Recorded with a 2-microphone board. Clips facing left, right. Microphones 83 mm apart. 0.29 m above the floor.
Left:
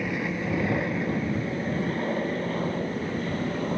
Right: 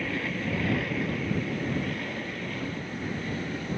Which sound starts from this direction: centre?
An aircraft, at 0.0 s.